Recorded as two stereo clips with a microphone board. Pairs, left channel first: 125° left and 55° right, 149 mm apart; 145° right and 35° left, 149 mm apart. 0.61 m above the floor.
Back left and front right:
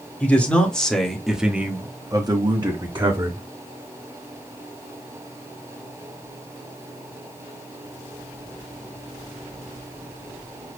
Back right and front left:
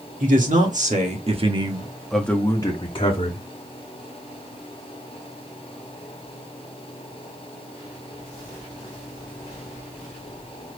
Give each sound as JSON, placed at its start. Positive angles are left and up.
{"t": 0.2, "sound": "a man speaking", "azimuth_deg": 45, "distance_m": 2.0}